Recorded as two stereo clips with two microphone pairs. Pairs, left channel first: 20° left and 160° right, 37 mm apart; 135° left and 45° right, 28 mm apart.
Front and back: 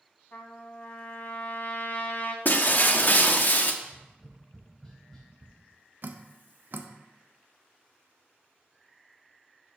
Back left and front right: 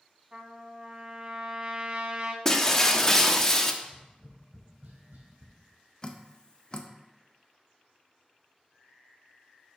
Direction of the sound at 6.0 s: 175° right.